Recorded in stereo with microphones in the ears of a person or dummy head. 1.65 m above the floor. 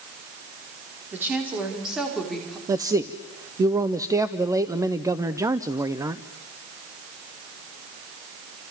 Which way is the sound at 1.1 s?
5° right (ahead or behind).